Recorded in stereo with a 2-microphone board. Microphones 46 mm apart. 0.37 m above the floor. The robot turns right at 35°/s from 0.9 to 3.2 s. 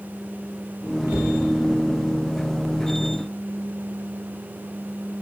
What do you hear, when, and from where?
1.1 s a cupboard door: 65° right (ahead or behind), 8.5 m; by 1.3 s 60° right (ahead or behind), 8.5 m